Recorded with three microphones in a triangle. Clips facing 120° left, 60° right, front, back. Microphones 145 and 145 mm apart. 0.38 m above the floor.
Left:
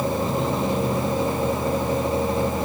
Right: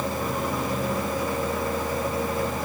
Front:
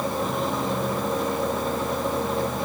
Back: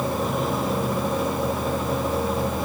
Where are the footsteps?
I don't hear footsteps.